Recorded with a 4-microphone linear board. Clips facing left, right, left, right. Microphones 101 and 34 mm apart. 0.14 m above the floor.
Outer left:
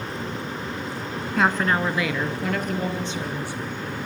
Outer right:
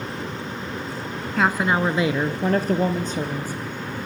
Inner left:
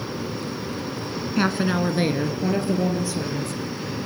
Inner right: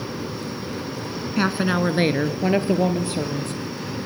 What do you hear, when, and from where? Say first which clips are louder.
1.4 s a woman speaking: outer right 1 dB, inner right 1 dB; centre (ahead or behind), 1.1 m; by 4.0 s 45° right (ahead or behind), 4 m